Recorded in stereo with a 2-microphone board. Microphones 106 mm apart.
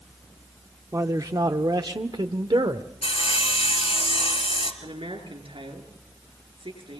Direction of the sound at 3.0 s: 65° left (ahead or behind).